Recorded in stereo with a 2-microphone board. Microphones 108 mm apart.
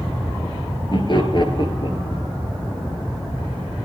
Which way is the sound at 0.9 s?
45° left (ahead or behind).